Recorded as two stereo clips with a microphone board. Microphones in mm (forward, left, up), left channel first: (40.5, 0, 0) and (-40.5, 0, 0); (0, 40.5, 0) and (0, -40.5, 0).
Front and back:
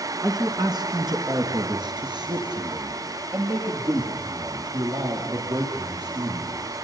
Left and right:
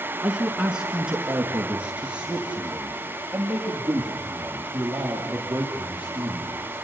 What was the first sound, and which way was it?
A man speaking, 170° right.